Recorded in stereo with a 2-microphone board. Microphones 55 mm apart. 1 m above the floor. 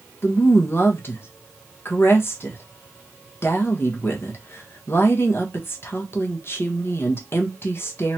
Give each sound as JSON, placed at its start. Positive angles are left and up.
{"t": 0.2, "sound": "a woman speaking", "side_deg": 45, "distance_m": 1.3}